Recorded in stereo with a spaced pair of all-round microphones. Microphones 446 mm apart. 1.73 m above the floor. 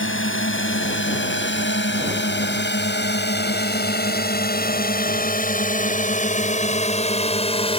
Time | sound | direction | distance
0.0 | a drone | 25° left (ahead or behind) | ?